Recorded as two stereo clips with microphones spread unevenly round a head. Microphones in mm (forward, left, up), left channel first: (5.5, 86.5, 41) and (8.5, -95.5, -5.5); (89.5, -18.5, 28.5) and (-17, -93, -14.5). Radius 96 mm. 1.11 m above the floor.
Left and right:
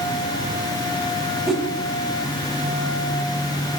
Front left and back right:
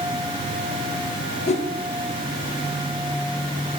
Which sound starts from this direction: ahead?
A whoosh, at 1.5 s.